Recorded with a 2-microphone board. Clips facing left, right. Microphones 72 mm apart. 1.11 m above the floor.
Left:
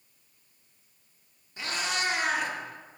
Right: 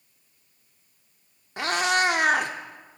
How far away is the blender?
No blender in this recording.